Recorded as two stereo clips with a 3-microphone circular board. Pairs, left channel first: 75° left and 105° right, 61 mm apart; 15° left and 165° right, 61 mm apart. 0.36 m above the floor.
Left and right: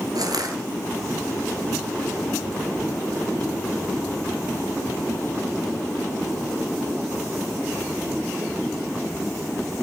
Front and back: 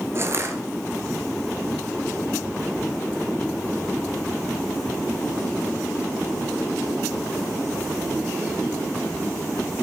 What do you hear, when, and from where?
0.1 s crushing: 120° right, 1.8 m